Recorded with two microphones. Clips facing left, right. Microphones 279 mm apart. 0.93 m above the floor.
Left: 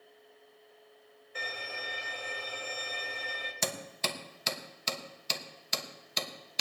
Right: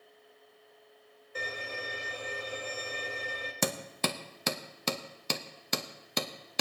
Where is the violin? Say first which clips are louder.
Right 4 dB; 45° right (ahead or behind), 2 m.